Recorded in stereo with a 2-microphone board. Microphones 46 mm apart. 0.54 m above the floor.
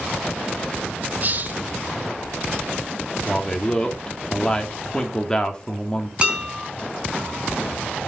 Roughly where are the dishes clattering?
Right.